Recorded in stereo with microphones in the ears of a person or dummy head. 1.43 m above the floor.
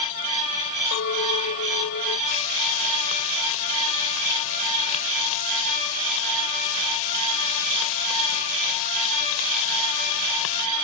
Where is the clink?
85° left.